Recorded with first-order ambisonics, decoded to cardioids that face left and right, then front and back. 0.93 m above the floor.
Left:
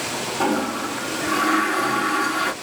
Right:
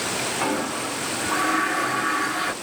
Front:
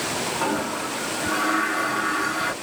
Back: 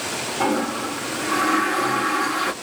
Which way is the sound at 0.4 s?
130° left.